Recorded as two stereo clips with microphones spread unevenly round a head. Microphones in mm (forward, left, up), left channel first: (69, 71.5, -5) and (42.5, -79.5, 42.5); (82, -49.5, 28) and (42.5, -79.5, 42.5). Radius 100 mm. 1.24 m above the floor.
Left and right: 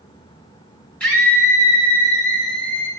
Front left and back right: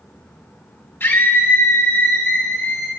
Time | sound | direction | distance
1.0 | a scream | straight ahead | 2.5 m